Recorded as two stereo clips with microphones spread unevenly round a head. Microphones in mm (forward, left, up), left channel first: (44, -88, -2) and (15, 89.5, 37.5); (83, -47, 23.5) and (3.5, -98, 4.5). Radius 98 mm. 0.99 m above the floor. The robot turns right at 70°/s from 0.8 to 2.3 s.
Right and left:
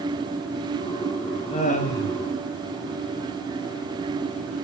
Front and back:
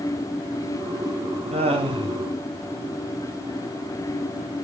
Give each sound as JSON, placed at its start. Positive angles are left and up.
{"t": 1.5, "sound": "laughter", "azimuth_deg": -145, "distance_m": 5.5}